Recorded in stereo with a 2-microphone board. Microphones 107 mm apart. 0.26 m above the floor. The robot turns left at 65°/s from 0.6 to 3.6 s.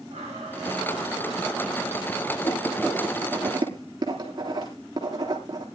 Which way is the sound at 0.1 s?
95° right.